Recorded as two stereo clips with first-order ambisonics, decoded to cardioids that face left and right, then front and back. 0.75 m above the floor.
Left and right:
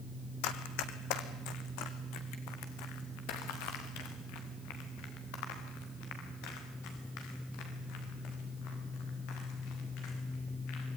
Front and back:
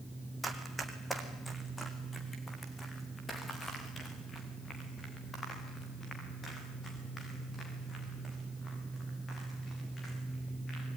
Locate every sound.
0.4 s running footsteps: 95° left, 2 m; by 10.9 s 70° left, 10 m